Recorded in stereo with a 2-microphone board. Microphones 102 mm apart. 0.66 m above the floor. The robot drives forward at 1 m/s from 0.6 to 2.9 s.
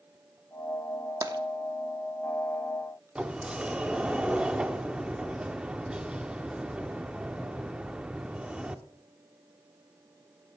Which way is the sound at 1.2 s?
35° right (ahead or behind).